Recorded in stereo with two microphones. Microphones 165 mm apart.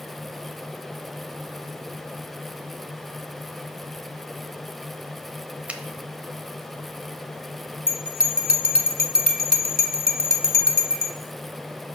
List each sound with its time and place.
5.7 s a finger snap: 10° right (ahead or behind), 0.9 m
7.9 s a bell: 65° right (ahead or behind), 1.1 m